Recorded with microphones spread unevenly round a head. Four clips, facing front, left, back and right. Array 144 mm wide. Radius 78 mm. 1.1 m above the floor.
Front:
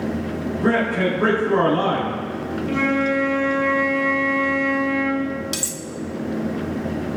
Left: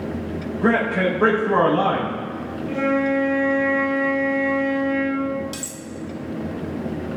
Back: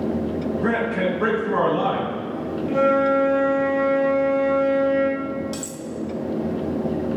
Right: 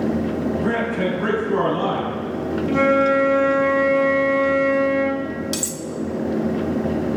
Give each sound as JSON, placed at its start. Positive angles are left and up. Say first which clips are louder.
{"t": 0.6, "sound": "a man speaking", "louder": "left 2 dB, front 4 dB", "azimuth_deg": 80, "distance_m": 4.0}
{"t": 2.7, "sound": "a flute", "louder": "right 4 dB, back 3 dB", "azimuth_deg": -80, "distance_m": 2.0}
{"t": 5.5, "sound": "cutlery clinking", "louder": "right 6 dB, even", "azimuth_deg": -40, "distance_m": 1.2}